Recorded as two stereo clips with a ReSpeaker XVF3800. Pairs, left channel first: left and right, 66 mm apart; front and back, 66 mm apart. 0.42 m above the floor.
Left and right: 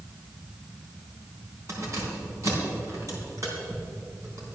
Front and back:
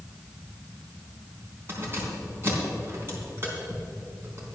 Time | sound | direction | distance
1.7 | keys jangling | 130° right | 3.5 m